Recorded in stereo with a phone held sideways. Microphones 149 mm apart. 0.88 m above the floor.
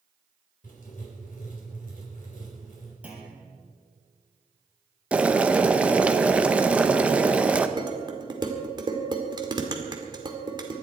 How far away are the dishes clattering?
About 1.9 m.